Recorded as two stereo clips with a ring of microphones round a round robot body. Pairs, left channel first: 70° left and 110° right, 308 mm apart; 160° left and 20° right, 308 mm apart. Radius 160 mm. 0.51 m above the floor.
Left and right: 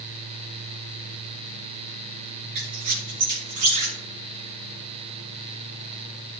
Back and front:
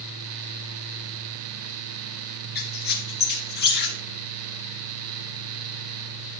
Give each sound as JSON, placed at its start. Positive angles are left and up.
{"t": 2.5, "sound": "a squeak", "azimuth_deg": -140, "distance_m": 2.5}